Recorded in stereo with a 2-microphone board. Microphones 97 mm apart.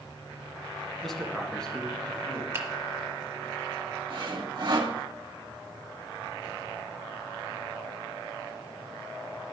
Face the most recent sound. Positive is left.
turn(degrees=-50)  # may be behind; listen again after turning